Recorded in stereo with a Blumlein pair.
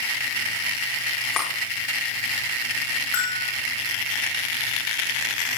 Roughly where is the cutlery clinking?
Ahead.